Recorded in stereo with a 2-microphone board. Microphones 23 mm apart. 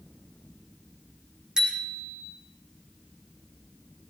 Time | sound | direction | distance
1.6 | a bicycle bell | 30° right (ahead or behind) | 4 m